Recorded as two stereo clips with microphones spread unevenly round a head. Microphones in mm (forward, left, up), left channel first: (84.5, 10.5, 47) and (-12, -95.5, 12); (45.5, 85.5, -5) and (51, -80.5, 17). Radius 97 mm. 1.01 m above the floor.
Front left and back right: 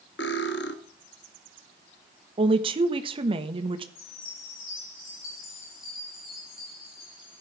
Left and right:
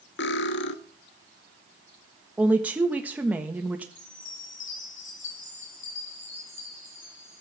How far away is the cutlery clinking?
About 1.0 m.